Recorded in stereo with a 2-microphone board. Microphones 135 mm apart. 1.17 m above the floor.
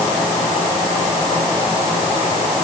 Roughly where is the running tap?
No running tap in this recording.